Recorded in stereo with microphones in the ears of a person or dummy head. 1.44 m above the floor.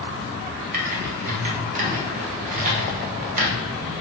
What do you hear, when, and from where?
0.7 s typing on a keyboard: 40° right (ahead or behind), 2 m